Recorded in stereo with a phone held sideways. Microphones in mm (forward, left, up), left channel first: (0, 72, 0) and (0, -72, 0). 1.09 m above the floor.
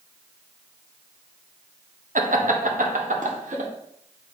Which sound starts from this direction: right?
Laughter, at 2.1 s.